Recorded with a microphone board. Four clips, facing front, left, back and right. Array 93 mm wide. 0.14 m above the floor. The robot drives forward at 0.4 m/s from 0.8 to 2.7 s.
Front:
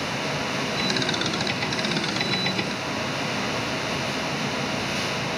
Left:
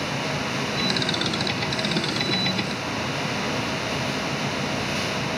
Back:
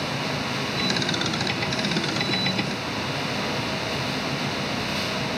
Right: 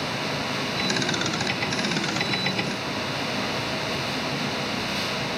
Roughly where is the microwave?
I don't hear a microwave.